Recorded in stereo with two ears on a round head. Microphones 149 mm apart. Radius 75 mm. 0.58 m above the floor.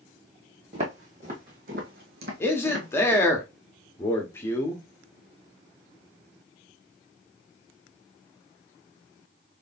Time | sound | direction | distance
0.7 | footsteps | 40° right (ahead or behind) | 1.8 m
2.4 | a man speaking | 15° left (ahead or behind) | 1.2 m